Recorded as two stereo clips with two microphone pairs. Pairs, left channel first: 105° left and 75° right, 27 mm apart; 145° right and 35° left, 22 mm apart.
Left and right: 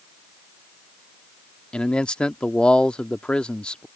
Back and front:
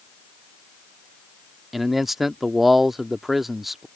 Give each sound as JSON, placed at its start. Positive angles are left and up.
{"t": 1.7, "sound": "a man speaking", "azimuth_deg": 105}